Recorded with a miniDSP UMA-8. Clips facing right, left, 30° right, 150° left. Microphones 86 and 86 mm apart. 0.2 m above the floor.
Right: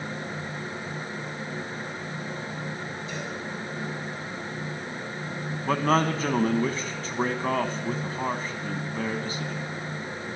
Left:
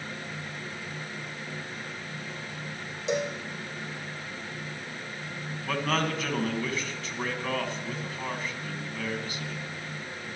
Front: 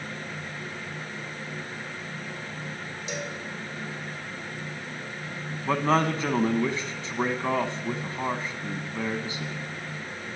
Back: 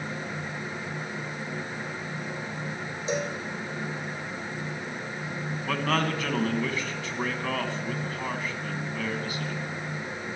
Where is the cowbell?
95° left, 2 m.